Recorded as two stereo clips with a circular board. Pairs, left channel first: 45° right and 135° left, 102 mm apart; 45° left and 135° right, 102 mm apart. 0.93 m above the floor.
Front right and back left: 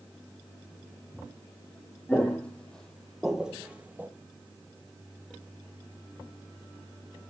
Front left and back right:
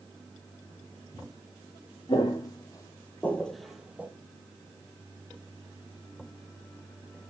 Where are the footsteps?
30° left, 1.4 m; by 4.1 s straight behind, 1.0 m.